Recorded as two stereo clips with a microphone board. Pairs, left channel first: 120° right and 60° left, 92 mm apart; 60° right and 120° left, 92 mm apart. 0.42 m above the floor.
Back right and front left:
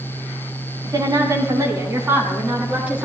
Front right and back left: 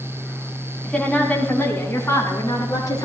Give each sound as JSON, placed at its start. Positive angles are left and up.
{"t": 0.8, "sound": "a woman speaking", "azimuth_deg": 20, "distance_m": 4.0}